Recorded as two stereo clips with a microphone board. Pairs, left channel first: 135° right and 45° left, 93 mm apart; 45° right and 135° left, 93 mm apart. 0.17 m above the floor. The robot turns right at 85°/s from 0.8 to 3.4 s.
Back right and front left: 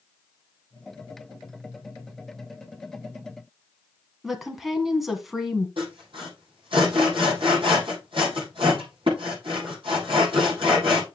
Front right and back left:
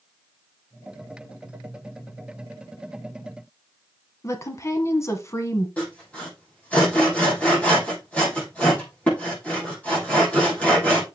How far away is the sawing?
About 7 m.